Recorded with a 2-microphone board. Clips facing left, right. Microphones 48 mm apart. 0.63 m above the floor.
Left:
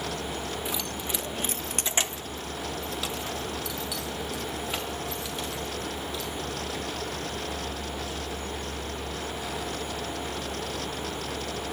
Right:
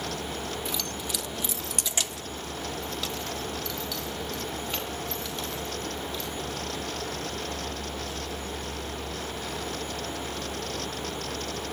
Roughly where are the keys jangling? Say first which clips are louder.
Left 1 dB; centre.